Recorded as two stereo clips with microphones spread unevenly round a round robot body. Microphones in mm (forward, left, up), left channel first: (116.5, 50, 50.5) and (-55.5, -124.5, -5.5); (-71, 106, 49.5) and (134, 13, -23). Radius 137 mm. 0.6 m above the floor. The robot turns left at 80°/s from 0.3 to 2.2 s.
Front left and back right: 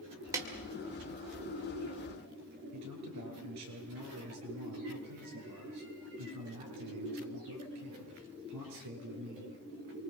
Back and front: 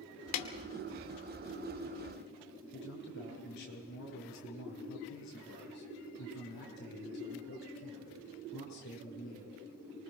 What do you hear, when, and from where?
0.3 s a snare drum: 155° left, 2 m; by 0.5 s 145° left, 2 m
2.7 s a man speaking: 150° right, 8 m